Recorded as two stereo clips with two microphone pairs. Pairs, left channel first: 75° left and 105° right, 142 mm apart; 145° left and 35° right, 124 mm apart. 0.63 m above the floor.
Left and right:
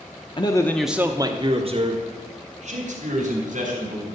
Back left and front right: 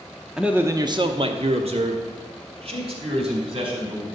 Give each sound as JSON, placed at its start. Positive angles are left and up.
{"t": 0.4, "sound": "a man speaking", "azimuth_deg": 50, "distance_m": 0.9}